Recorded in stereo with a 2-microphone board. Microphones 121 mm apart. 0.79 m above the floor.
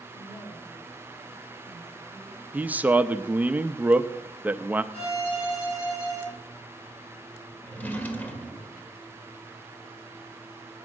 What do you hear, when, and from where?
0.1 s a woman speaking: 35° left (ahead or behind), 5.5 m; by 2.4 s 25° left (ahead or behind), 5.5 m
2.5 s a man speaking: 15° right (ahead or behind), 0.6 m
4.9 s a violin: 45° left (ahead or behind), 7 m
7.6 s a drawer: 15° left (ahead or behind), 1.8 m